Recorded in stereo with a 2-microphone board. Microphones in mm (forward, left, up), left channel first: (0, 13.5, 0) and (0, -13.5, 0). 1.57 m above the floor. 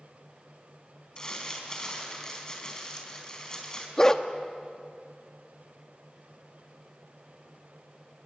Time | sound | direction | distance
1.2 | crumpling | 25° left (ahead or behind) | 4 m
4.0 | a dog barking | 20° left (ahead or behind) | 1.0 m